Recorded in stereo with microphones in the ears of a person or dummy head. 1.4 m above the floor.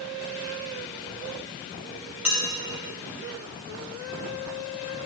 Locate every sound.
2.2 s dishes clattering: 10° right (ahead or behind), 1.9 m